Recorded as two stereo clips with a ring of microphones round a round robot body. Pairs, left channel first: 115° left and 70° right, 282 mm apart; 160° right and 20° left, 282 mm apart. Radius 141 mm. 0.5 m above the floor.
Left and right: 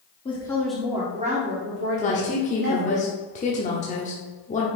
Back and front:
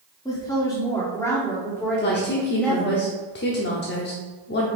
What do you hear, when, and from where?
0.2 s a woman speaking: 145° left, 1.2 m; by 3.0 s 70° right, 2 m
2.0 s a woman speaking: 165° left, 0.8 m